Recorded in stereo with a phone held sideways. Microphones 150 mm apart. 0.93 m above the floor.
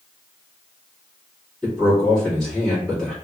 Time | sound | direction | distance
1.6 | a man speaking | 5° left (ahead or behind) | 1.8 m